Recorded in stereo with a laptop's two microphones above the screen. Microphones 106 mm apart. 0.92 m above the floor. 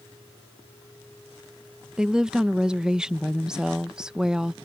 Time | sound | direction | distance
2.0 | a woman speaking | 5° right (ahead or behind) | ?